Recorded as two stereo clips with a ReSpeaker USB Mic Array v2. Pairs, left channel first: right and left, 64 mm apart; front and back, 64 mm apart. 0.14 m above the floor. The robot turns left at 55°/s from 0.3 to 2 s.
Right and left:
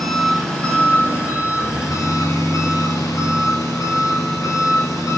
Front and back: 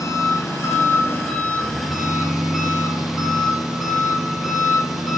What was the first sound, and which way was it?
An engine running, straight ahead.